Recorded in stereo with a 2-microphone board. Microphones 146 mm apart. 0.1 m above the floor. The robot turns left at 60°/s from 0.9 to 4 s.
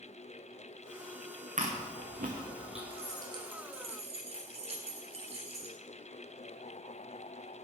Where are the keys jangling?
20° right, 1.7 m; by 5.8 s 85° right, 1.7 m.